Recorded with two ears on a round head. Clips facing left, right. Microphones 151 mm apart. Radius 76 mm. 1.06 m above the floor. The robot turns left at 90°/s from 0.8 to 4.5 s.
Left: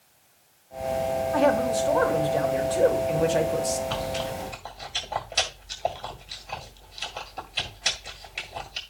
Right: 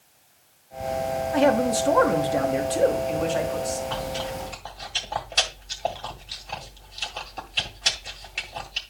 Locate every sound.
1.3 s a man speaking: 20° right, 1.5 m; by 3.8 s 115° left, 1.5 m
3.9 s chewing: 50° left (ahead or behind), 1.6 m; by 8.8 s 5° left (ahead or behind), 1.6 m